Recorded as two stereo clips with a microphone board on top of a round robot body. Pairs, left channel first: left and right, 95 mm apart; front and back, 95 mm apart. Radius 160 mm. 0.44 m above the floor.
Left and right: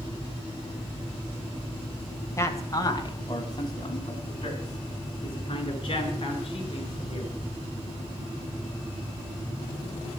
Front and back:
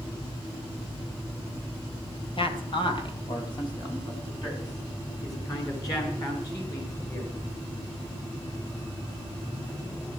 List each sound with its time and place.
2.4 s a man speaking: 30° left, 3 m; by 7.4 s 55° left, 9 m